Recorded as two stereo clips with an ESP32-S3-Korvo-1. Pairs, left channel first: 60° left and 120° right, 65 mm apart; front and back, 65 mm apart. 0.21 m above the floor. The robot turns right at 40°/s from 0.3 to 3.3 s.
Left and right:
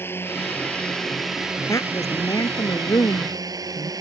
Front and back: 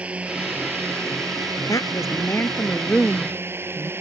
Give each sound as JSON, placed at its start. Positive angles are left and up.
{"t": 0.0, "sound": "a drone", "azimuth_deg": 110}
{"t": 1.7, "sound": "a woman speaking", "azimuth_deg": 25}